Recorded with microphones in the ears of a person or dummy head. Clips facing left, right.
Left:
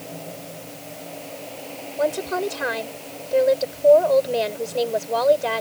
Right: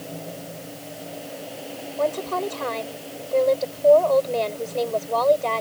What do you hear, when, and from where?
0.0 s a fan: 10° right (ahead or behind)
2.0 s a woman speaking: 15° left (ahead or behind)